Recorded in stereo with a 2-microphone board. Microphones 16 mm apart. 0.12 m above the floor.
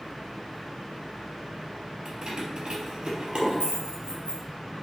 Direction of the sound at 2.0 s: 35° right (ahead or behind).